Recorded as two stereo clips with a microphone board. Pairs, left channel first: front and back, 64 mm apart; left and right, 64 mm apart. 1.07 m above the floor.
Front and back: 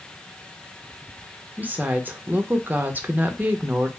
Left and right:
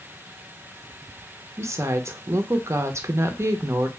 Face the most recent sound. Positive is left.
turn(degrees=-120)